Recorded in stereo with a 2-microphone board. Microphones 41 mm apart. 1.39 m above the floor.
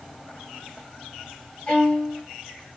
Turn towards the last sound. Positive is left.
turn(degrees=20)  # may be behind; listen again after turning